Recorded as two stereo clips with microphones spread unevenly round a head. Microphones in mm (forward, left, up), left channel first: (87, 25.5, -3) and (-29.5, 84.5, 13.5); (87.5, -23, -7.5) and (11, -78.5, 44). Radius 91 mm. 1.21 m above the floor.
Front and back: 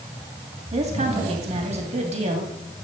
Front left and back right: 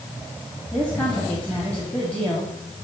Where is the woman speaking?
115° left, 2.5 m.